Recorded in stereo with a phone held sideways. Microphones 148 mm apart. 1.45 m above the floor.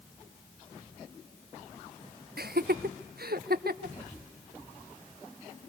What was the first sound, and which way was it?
Laughter, 85° right.